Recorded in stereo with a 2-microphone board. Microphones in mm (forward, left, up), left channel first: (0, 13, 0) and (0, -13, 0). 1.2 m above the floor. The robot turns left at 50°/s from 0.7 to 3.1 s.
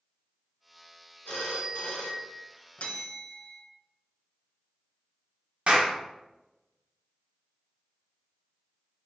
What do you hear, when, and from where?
1.2 s a phone ringing: 135° left, 1.2 m; by 2.5 s 75° left, 1.2 m
2.8 s a bell: 65° left (ahead or behind), 0.7 m; by 3.6 s 50° left (ahead or behind), 0.7 m
5.7 s a clap: 55° right (ahead or behind), 1.0 m